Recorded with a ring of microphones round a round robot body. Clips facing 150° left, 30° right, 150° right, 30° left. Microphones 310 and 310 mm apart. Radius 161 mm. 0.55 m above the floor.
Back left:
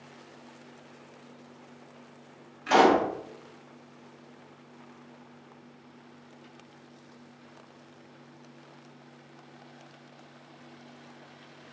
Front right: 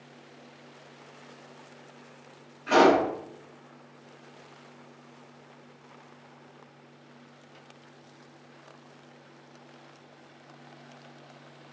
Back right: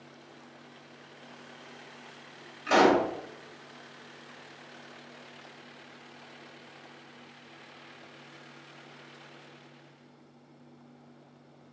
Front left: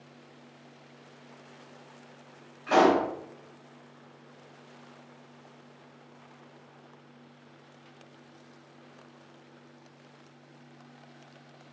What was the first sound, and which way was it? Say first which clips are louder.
A pop: front right 1 dB, even; 175° right.